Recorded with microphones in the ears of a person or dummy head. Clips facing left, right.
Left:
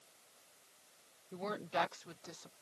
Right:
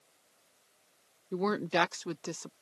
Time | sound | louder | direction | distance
1.3 | a woman speaking | right 9 dB | 65° right (ahead or behind) | ?